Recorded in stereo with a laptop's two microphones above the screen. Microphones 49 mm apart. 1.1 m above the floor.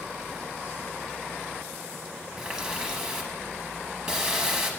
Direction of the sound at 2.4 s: 20° right (ahead or behind).